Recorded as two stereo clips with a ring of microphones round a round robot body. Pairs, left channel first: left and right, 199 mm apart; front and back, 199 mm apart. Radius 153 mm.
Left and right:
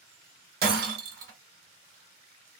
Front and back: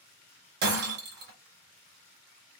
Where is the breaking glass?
135° right, 0.8 m.